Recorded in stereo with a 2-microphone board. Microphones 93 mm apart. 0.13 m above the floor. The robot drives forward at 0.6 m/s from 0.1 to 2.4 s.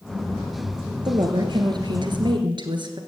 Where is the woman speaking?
50° right (ahead or behind), 2.0 m; by 3.0 s 55° right (ahead or behind), 1.8 m.